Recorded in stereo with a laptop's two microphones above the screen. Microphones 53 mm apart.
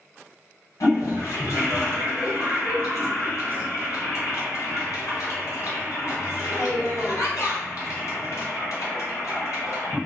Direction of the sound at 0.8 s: 75° left (ahead or behind).